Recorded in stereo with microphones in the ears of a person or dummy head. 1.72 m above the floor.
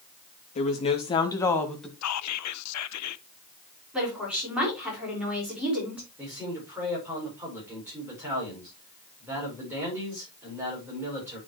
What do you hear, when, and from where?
0.6 s a woman speaking: 35° left (ahead or behind), 2.0 m; by 1.9 s centre (ahead or behind), 1.5 m
2.0 s whispering: 85° left, 0.6 m
3.9 s a woman speaking: 5° right (ahead or behind), 4.5 m
6.2 s a man speaking: 10° right (ahead or behind), 5.5 m